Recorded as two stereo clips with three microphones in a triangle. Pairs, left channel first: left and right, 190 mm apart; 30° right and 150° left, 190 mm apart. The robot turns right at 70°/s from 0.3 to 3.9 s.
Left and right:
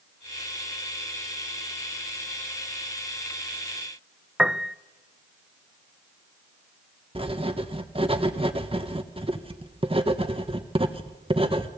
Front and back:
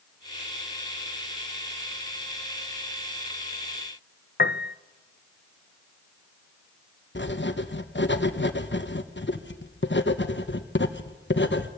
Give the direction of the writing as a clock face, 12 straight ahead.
1 o'clock.